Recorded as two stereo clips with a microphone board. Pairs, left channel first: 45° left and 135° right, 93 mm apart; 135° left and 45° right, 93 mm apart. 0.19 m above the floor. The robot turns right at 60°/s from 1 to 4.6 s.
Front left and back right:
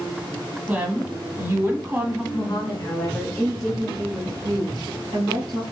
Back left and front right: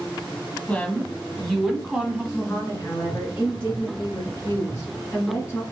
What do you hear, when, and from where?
0.7 s a woman speaking: 175° right, 1.2 m; by 2.2 s 105° right, 1.2 m
2.3 s a woman speaking: 55° left, 2 m; by 5.6 s 170° right, 2 m